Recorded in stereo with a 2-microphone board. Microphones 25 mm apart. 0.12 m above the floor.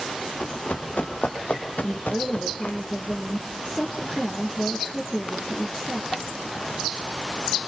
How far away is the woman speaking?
About 3.5 m.